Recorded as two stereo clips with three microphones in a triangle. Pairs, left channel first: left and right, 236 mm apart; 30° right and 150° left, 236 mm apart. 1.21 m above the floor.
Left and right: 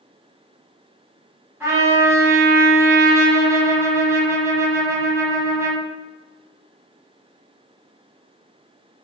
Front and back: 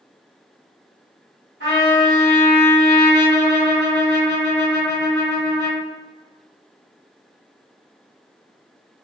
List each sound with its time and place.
1.6 s a trumpet: 10° right, 1.7 m